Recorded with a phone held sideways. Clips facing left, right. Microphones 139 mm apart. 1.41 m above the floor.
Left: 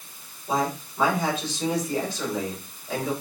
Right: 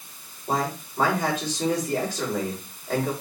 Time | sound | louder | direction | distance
0.5 | a man speaking | left 1 dB | 45° right (ahead or behind) | 5.5 m